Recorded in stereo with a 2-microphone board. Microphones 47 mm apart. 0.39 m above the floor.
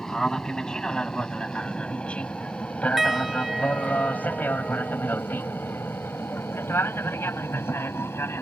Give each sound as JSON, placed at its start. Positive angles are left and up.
{"t": 0.0, "sound": "an aircraft", "side_deg": 15}
{"t": 3.0, "sound": "a piano", "side_deg": -5}